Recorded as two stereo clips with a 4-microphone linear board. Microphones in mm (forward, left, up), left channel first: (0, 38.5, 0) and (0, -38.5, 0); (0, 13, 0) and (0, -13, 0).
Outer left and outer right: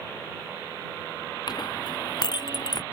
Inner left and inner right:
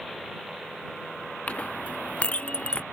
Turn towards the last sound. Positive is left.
turn(degrees=65)  # may be behind; listen again after turning